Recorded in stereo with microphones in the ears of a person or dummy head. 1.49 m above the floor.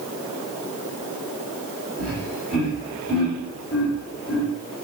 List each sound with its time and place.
2.0 s laughter: 5° left (ahead or behind), 4 m; by 4.5 s centre (ahead or behind), 1.7 m